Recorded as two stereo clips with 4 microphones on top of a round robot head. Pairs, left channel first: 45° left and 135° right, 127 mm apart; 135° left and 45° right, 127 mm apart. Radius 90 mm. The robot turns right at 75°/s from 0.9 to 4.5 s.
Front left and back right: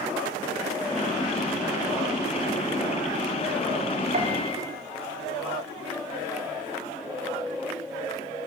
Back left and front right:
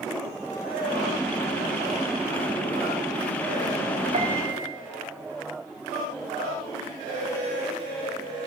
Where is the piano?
95° right, 5 m; by 4.7 s 70° right, 5 m.